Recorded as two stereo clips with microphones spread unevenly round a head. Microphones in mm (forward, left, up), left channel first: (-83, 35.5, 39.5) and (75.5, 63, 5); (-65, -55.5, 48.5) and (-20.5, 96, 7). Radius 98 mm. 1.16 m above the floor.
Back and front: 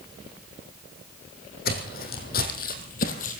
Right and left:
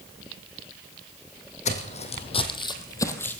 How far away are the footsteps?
About 3 m.